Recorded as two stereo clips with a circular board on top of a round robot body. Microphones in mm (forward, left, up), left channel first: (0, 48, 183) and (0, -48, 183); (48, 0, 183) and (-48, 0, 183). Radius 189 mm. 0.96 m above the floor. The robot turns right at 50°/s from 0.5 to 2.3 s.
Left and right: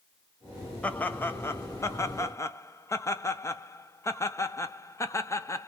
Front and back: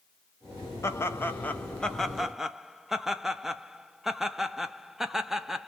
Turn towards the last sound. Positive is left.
turn(degrees=100)